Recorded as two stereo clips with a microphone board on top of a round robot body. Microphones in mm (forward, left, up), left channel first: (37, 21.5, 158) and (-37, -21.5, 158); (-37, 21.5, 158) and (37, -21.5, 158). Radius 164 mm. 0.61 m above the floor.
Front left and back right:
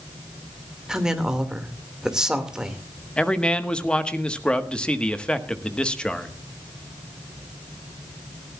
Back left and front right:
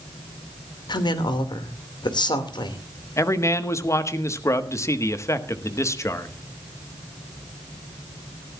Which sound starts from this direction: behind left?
A woman speaking, at 0.9 s.